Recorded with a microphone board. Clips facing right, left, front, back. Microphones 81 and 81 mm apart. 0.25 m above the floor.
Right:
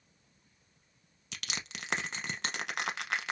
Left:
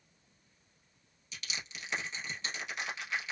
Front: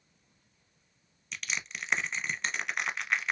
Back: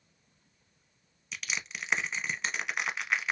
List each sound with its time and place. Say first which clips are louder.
1.3 s crushing: right 2 dB, even; 95° right, 0.6 m